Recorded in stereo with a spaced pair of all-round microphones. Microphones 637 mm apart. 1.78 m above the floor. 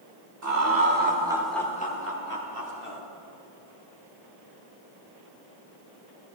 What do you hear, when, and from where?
0.4 s laughter: 25° right (ahead or behind), 1.5 m; by 3.0 s 50° left (ahead or behind), 1.3 m